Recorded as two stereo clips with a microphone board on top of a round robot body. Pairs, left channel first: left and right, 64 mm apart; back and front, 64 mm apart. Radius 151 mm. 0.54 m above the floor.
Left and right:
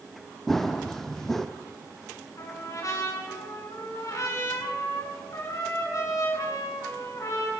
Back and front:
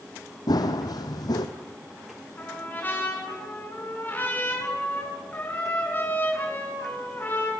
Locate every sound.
0.5 s running footsteps: 175° left, 1.2 m
2.4 s a trumpet: 120° left, 6.5 m